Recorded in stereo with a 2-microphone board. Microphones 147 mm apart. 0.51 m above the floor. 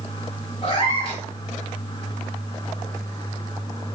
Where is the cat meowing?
45° left (ahead or behind), 1.7 m.